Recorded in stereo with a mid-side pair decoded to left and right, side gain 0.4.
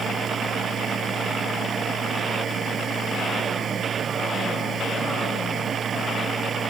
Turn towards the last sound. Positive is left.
turn(degrees=-60)